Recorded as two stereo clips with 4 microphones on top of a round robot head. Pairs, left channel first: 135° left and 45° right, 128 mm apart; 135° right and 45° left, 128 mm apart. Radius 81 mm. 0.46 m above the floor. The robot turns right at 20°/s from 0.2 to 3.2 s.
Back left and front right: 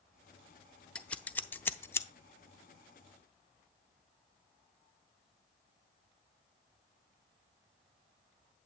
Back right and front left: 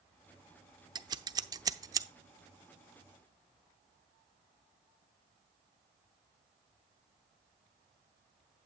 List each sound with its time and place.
0.9 s scissors: 60° left, 0.7 m; by 2.1 s 85° left, 0.7 m